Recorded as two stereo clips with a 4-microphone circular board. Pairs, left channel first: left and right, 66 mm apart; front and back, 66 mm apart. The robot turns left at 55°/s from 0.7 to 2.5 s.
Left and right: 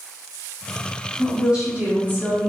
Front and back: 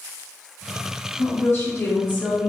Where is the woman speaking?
Straight ahead, 1.2 m; by 2.5 s 75° right, 1.2 m.